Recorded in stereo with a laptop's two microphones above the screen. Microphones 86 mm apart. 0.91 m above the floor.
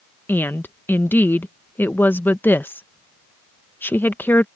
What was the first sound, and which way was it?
A woman speaking, 25° left (ahead or behind).